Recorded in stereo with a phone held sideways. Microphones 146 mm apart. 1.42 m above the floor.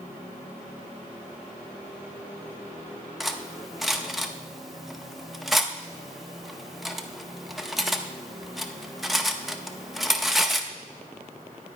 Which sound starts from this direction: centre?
Cutlery clinking, at 3.2 s.